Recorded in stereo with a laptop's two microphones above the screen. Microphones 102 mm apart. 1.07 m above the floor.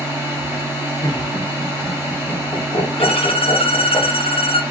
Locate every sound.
0.0 s a machine running: 30° right (ahead or behind), 1.5 m
1.0 s laughter: 45° left (ahead or behind), 1.0 m
3.0 s a violin: 70° left (ahead or behind), 0.6 m